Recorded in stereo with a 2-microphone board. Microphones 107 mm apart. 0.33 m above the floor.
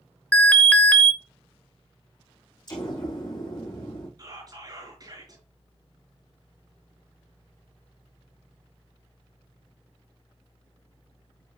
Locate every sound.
0.3 s an alarm: 15° left (ahead or behind), 0.6 m
2.7 s an explosion: 40° left (ahead or behind), 3.5 m
4.2 s whispering: 40° right (ahead or behind), 5 m